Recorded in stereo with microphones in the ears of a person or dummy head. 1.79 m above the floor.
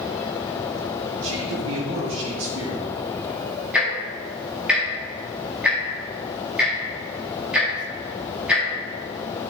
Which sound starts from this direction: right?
A man speaking, at 1.2 s.